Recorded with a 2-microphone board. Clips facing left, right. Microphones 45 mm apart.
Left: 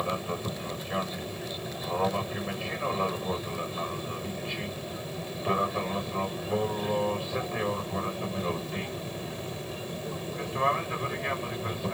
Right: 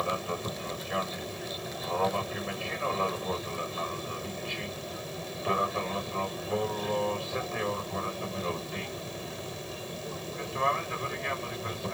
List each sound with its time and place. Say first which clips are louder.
0.0 s an aircraft: even; 5° right (ahead or behind); by 11.9 s 5° left (ahead or behind)